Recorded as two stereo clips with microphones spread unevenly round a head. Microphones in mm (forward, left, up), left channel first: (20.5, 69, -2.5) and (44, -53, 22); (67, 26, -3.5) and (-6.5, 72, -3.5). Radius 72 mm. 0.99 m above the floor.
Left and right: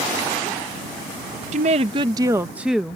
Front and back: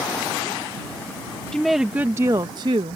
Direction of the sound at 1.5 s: 115° right.